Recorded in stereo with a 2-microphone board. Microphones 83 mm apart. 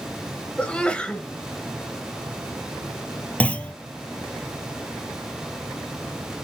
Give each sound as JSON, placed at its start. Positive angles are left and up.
{"t": 0.6, "sound": "a sneeze", "side_deg": 15, "distance_m": 0.9}
{"t": 3.4, "sound": "a clunk", "side_deg": 15, "distance_m": 0.7}